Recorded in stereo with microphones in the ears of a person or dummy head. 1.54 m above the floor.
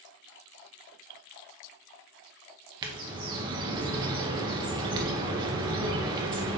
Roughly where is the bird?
Right.